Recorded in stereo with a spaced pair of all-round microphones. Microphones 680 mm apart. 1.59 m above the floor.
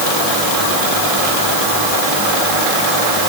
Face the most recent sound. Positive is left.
No sound to turn to.